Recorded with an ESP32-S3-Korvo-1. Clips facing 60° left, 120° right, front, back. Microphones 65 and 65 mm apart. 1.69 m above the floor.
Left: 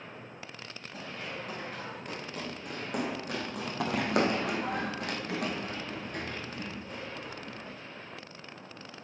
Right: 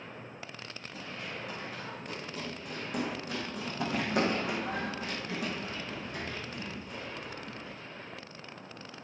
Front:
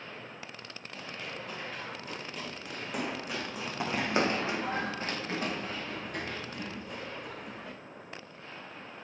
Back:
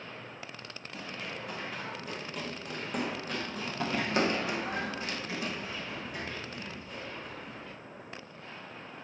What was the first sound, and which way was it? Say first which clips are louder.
Running footsteps: left 2 dB, back 1 dB; 105° left.